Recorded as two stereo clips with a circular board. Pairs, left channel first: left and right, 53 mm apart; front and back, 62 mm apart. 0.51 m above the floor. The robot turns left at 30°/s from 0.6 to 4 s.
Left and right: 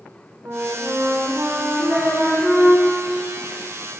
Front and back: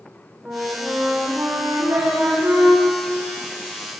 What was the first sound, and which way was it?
A flute, 115° right.